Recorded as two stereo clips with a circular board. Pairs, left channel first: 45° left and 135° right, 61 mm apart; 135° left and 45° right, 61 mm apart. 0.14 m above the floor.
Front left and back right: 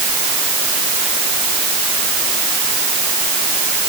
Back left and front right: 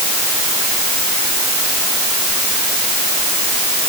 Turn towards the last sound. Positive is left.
No sound to turn to.